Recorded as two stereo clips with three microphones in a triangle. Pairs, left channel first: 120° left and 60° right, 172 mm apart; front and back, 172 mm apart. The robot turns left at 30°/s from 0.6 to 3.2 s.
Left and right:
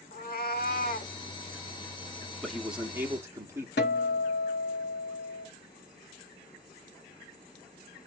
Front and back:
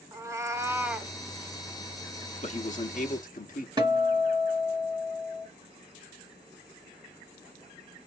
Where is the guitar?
115° left, 1.2 m.